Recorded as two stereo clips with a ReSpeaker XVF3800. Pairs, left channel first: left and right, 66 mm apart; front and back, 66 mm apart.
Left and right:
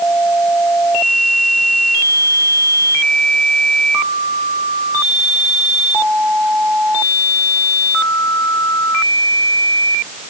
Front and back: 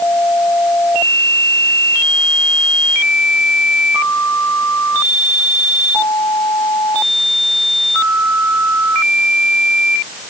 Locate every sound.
Only background noise.